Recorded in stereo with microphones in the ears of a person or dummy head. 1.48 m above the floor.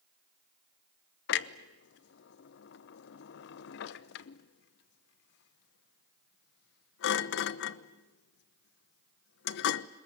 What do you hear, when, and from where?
1.3 s a clunk: 70° left (ahead or behind), 0.9 m